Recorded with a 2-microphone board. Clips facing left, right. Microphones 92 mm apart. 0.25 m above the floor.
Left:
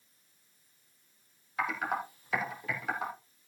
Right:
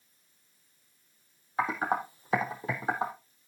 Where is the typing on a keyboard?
30° right (ahead or behind), 2.5 m.